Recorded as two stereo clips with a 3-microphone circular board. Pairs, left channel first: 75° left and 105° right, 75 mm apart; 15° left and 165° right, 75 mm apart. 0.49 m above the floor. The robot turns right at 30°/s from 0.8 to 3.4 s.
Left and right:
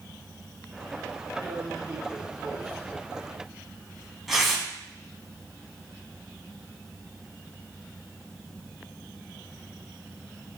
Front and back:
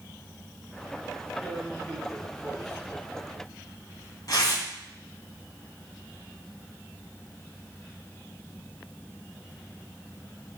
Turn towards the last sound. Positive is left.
turn(degrees=-20)